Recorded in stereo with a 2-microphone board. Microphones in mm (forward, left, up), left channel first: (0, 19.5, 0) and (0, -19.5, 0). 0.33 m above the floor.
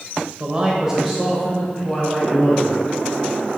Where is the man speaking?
25° right (ahead or behind), 0.9 m; by 2.8 s 10° left (ahead or behind), 2.5 m.